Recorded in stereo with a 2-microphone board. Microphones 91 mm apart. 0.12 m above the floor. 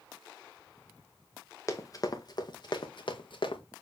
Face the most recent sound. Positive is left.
turn(degrees=70)  # may be behind; listen again after turning